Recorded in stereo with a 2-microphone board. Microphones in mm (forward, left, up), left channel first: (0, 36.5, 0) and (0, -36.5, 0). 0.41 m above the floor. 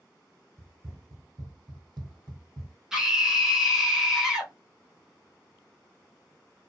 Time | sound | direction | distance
0.6 | running footsteps | 35° right (ahead or behind) | 1.0 m
2.9 | a scream | 10° right (ahead or behind) | 1.1 m